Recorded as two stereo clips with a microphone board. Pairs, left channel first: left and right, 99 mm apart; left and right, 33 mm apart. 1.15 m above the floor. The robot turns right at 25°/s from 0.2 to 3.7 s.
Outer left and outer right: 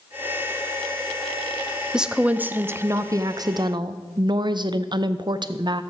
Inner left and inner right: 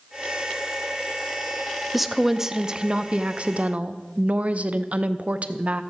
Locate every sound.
1.9 s a woman speaking: 175° right, 0.5 m; by 5.8 s 130° right, 0.5 m